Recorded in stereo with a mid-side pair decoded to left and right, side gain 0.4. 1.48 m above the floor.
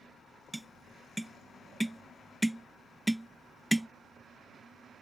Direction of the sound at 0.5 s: 5° right.